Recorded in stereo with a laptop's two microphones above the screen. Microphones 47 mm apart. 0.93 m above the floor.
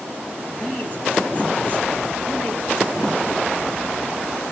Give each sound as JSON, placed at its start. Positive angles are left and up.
{"t": 0.5, "sound": "a man speaking", "side_deg": 40, "distance_m": 4.0}